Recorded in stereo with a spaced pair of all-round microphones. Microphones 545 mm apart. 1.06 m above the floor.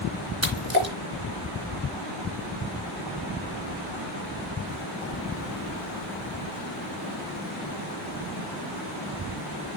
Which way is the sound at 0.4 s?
25° right (ahead or behind).